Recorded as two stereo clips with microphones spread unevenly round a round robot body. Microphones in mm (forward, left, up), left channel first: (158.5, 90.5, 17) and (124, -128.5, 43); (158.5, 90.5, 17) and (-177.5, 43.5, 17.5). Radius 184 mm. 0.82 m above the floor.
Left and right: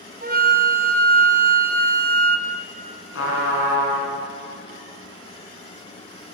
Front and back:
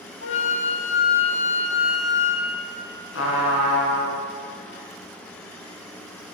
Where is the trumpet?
60° left, 4.5 m.